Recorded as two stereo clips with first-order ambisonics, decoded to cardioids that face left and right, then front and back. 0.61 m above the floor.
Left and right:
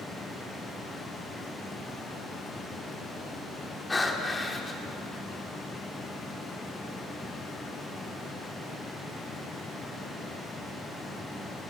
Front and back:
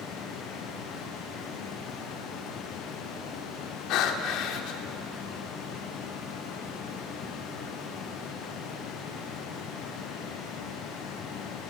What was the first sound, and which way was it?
Breathing, 15° left.